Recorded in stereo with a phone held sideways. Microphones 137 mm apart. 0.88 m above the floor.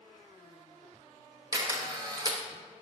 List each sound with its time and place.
1.5 s a camera shutter: 30° right (ahead or behind), 0.8 m